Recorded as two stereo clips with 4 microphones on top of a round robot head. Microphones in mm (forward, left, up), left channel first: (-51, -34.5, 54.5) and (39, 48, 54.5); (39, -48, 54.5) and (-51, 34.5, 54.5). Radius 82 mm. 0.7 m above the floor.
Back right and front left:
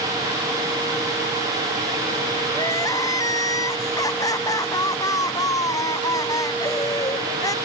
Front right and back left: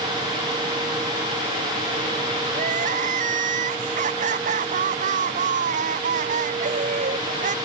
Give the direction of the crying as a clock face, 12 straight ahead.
7 o'clock.